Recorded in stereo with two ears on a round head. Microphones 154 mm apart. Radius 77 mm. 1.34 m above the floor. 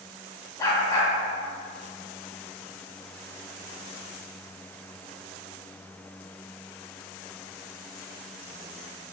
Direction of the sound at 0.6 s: 20° left (ahead or behind).